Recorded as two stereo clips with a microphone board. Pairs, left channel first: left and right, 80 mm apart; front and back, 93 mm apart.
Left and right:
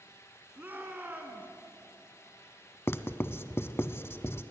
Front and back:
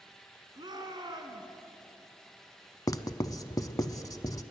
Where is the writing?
40° left, 0.7 m.